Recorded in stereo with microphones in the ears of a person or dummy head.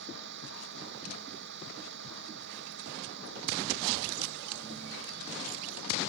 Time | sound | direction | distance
0.0 | a vehicle | 60° right (ahead or behind) | ?